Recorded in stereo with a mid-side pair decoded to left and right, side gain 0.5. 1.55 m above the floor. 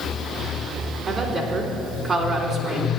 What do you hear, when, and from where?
1.1 s a woman speaking: 60° right, 3.5 m